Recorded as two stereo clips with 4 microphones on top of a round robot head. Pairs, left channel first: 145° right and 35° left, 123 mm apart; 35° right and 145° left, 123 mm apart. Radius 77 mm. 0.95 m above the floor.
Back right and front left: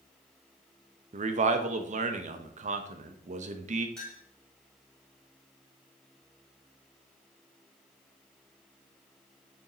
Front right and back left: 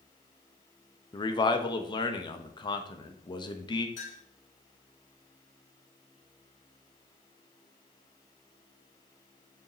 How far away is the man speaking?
About 0.9 m.